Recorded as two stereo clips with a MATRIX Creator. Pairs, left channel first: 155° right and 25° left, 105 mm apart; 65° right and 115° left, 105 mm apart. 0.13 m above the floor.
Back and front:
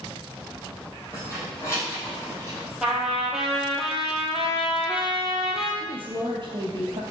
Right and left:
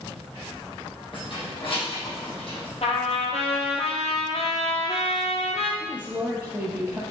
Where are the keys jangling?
100° right, 3 m; by 2.7 s 95° right, 3.5 m.